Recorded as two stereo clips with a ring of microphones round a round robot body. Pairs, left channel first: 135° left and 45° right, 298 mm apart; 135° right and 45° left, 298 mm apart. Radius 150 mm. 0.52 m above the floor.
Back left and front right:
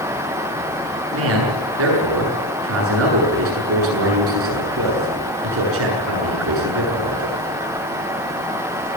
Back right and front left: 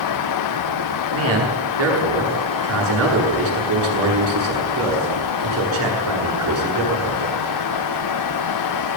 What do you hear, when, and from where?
1.1 s a man speaking: straight ahead, 8 m